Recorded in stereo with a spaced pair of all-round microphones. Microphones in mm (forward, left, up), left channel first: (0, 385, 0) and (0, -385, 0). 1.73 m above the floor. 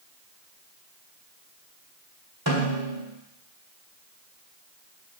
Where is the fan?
No fan in this recording.